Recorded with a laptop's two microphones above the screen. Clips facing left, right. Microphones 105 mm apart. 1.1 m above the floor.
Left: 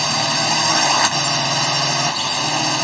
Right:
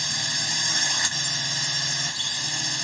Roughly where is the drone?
Left.